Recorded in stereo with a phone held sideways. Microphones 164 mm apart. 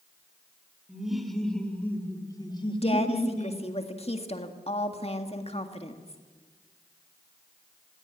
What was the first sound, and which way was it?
Laughter, 5° right (ahead or behind).